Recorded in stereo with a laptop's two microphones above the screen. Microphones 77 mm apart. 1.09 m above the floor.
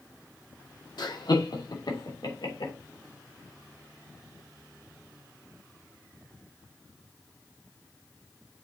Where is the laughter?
70° left (ahead or behind), 2 m.